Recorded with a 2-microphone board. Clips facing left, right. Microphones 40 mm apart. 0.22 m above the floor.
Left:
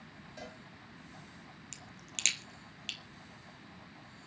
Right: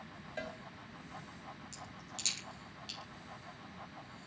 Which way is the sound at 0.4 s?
45° right (ahead or behind).